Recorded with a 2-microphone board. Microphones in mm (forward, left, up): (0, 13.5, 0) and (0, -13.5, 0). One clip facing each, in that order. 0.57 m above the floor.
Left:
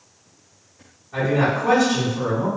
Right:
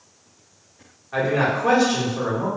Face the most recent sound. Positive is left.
turn(degrees=-45)  # may be behind; listen again after turning